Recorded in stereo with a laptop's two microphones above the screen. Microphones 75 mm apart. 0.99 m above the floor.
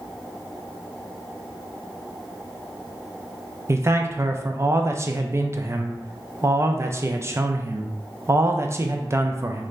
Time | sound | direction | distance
3.7 | a man speaking | 35° right (ahead or behind) | 0.5 m